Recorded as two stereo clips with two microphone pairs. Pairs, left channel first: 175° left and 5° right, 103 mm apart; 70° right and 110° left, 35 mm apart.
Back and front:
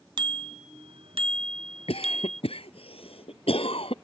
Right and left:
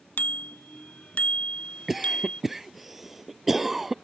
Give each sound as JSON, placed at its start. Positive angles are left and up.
{"t": 0.2, "sound": "a bicycle bell", "azimuth_deg": -40}
{"t": 1.9, "sound": "a cough", "azimuth_deg": -165}